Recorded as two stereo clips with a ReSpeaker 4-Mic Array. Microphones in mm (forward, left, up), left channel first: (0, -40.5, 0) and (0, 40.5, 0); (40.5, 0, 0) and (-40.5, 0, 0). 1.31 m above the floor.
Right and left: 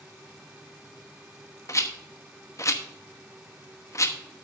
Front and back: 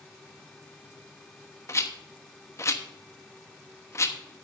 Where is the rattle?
45° right, 1.0 m.